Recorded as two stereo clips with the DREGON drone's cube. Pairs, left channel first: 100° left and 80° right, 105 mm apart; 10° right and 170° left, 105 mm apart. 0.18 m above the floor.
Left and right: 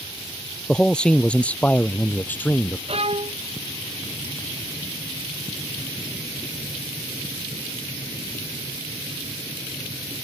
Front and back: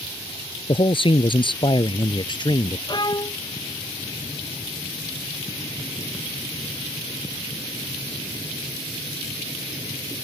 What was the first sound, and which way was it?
A man speaking, 15° left.